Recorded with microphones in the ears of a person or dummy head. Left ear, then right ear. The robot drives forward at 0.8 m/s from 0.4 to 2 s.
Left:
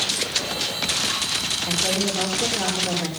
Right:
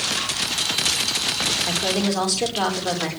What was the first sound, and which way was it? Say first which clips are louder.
A woman speaking: even; 50° right (ahead or behind).